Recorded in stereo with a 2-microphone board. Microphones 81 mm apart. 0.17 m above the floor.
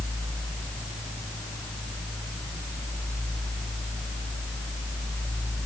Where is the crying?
I don't hear crying.